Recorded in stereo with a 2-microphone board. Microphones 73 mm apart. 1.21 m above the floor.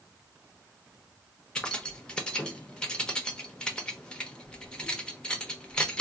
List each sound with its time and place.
1.6 s keys jangling: 15° left (ahead or behind), 0.8 m